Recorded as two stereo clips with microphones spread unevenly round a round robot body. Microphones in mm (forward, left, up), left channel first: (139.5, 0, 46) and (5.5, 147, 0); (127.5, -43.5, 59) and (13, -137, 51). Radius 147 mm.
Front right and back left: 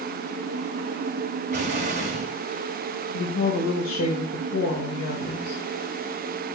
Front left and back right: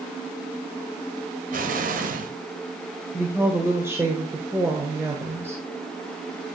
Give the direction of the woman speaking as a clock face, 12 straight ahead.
2 o'clock.